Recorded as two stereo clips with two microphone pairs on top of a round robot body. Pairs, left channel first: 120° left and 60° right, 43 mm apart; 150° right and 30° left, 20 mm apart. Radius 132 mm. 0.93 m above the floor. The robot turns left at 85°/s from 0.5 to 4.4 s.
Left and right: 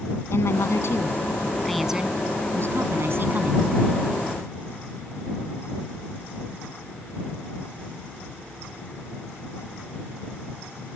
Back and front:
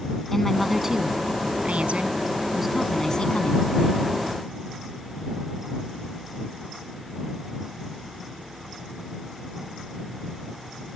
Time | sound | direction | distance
0.3 | a woman speaking | 135° left | ?